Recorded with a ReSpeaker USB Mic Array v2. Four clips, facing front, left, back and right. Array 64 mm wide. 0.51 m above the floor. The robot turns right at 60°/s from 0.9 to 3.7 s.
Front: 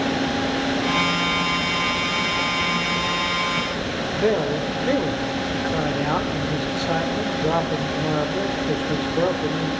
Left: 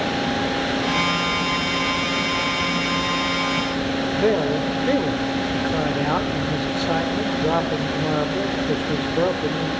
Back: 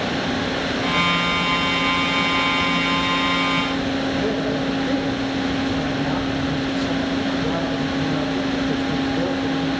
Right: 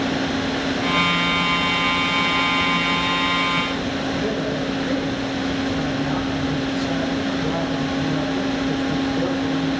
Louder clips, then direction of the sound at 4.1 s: Left 7 dB, front 1 dB; 55° left.